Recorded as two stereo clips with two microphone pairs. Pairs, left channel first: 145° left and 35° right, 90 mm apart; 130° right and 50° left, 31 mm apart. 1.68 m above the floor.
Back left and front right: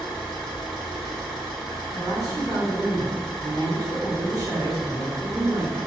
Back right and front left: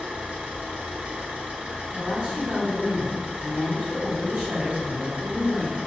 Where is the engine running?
55° left, 1.7 m.